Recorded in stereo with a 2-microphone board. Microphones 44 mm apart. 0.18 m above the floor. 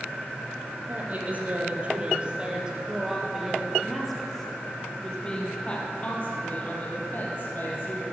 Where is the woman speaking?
40° right (ahead or behind), 4.5 m; by 8.0 s 45° left (ahead or behind), 5.5 m.